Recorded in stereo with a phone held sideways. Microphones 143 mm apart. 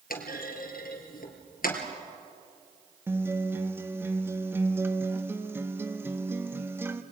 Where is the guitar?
15° right (ahead or behind), 1.1 m.